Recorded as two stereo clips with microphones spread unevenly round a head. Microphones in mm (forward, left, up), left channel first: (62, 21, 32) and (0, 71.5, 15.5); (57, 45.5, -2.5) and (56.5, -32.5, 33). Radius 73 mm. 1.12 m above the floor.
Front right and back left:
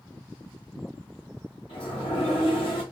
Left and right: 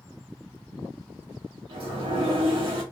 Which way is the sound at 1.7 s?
80° right.